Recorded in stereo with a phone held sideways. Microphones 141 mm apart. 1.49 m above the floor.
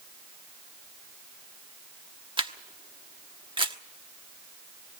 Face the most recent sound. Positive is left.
turn(degrees=-35)  # may be behind; listen again after turning